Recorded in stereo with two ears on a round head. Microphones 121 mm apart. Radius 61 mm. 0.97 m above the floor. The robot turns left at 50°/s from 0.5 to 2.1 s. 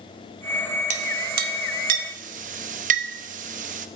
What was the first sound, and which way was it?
A clink, 50° right (ahead or behind).